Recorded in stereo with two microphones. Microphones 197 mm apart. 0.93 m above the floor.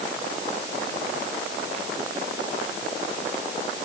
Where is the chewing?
No chewing in this recording.